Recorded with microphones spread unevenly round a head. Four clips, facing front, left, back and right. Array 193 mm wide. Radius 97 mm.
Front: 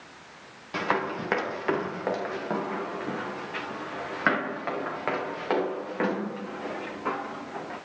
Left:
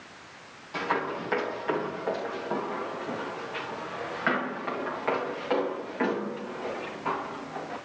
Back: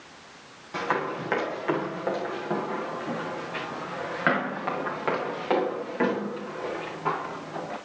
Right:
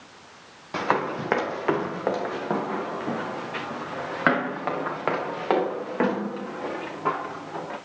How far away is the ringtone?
No ringtone in this recording.